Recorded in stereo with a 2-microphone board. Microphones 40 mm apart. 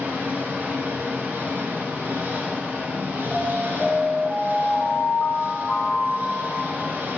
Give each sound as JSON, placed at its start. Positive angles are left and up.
{"t": 0.0, "sound": "an engine running", "side_deg": -50, "distance_m": 2.5}
{"t": 3.3, "sound": "an alarm", "side_deg": 5, "distance_m": 5.0}